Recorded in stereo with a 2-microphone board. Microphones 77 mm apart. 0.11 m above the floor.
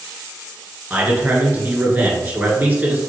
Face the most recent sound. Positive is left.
turn(degrees=-25)  # may be behind; listen again after turning